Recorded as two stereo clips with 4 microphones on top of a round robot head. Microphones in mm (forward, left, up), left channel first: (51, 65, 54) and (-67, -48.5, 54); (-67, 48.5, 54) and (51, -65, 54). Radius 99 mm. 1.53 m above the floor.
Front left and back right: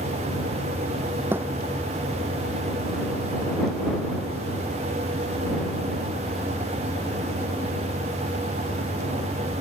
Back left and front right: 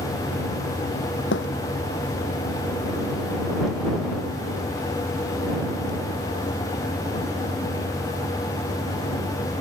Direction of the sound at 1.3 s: 145° left.